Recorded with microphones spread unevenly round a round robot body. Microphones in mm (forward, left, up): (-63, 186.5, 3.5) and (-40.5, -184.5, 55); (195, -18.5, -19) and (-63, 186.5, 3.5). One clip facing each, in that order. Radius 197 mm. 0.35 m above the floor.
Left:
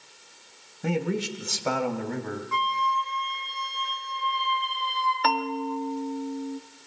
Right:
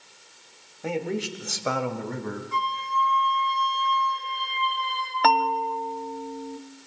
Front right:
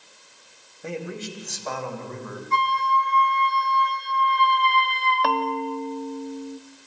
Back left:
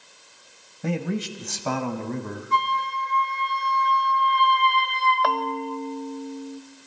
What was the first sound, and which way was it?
A man speaking, 150° left.